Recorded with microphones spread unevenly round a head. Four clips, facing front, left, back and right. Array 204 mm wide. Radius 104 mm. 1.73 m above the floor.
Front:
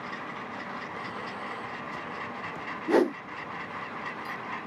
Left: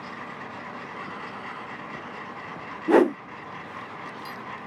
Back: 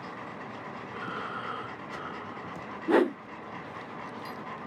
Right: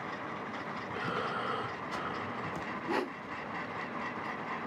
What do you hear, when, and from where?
0.9 s breathing: 100° right
2.9 s a whoosh: 85° left